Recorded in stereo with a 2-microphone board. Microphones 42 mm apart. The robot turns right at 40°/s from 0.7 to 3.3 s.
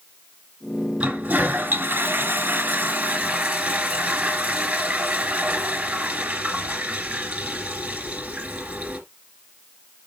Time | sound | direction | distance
1.0 | a toilet flushing | 150° right | 2.5 m